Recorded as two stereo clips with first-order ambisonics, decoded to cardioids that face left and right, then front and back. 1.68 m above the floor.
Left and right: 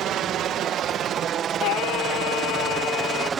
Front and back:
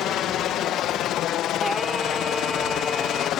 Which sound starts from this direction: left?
Singing, at 1.6 s.